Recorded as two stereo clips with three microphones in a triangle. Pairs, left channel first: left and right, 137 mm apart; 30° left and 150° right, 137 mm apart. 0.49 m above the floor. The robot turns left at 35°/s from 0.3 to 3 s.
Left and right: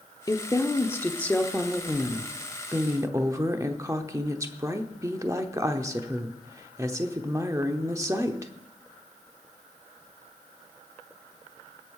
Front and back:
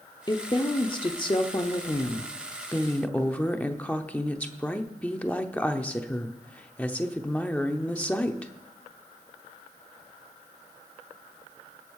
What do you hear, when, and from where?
0.3 s a woman speaking: 50° left, 0.8 m; by 8.5 s 45° right, 0.8 m